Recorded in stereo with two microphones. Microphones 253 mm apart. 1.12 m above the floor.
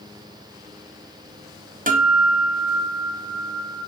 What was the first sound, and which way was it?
A guitar, 35° right (ahead or behind).